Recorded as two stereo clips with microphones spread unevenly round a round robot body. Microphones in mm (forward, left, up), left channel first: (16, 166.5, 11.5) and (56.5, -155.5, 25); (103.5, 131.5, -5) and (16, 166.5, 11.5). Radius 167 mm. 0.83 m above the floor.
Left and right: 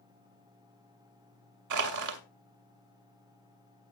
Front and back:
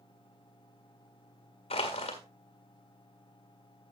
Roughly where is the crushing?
Ahead right.